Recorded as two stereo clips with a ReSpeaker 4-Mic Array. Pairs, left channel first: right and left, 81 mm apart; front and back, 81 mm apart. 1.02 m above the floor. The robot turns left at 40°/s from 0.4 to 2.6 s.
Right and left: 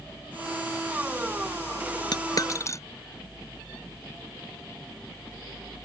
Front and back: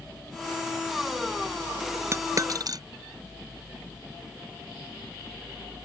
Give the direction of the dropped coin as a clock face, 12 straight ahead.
4 o'clock.